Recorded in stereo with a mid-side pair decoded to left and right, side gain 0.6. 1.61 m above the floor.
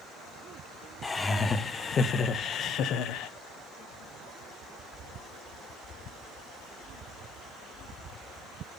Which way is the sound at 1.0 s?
25° left.